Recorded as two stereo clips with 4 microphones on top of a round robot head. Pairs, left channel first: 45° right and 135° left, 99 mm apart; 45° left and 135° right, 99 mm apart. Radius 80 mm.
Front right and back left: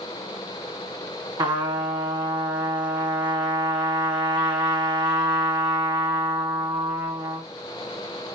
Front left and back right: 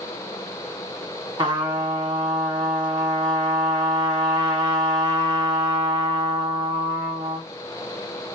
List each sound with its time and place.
1.4 s a trumpet: straight behind, 1.9 m